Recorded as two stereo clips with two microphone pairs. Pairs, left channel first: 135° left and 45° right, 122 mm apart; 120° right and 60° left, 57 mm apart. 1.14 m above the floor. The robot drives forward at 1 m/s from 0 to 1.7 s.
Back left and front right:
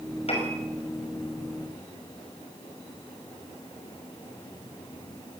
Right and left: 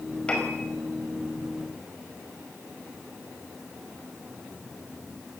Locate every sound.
0.3 s a piano: 170° left, 5.5 m